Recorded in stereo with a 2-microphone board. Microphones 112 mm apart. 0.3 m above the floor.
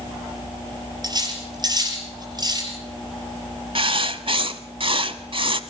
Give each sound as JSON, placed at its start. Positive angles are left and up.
{"t": 1.0, "sound": "cutlery clinking", "side_deg": -35, "distance_m": 4.0}
{"t": 3.8, "sound": "writing", "side_deg": -50, "distance_m": 1.0}